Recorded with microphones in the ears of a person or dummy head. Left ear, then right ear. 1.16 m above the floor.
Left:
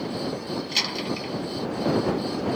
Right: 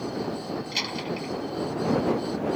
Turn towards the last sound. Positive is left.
turn(degrees=10)  # may be behind; listen again after turning